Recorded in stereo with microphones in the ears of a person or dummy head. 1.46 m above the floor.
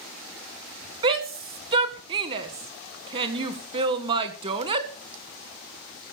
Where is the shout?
35° right (ahead or behind), 1.7 m.